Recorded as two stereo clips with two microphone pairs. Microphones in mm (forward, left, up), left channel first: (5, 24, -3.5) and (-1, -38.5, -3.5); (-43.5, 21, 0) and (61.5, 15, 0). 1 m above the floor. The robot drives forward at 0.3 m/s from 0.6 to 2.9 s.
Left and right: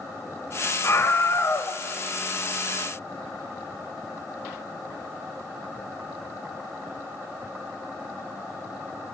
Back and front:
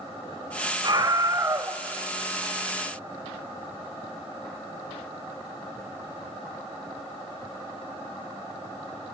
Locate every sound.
0.8 s a scream: 40° left, 0.8 m; by 1.8 s 65° left, 0.7 m